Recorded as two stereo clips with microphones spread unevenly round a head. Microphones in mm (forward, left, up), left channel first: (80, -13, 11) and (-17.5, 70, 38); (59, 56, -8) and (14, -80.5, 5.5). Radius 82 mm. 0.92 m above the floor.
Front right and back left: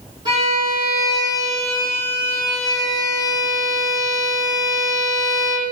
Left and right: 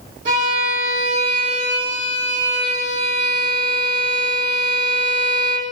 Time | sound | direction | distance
0.2 | a violin | 155° right | 7 m